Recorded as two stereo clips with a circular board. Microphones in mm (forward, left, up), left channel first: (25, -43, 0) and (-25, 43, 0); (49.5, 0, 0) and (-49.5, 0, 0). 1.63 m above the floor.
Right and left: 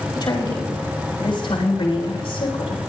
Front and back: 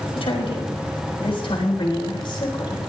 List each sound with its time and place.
0.1 s a woman speaking: 20° right, 4.5 m; by 2.8 s 40° right, 3.5 m